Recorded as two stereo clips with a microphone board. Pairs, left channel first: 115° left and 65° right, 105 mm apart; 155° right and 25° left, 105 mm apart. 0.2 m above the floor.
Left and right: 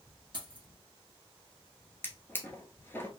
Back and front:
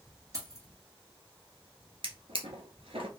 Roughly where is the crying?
I don't hear crying.